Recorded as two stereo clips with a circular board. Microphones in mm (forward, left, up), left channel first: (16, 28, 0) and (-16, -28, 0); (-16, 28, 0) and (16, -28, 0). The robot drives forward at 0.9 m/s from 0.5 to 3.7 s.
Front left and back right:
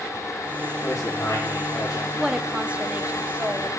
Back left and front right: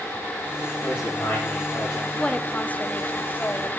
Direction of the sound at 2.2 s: 170° left.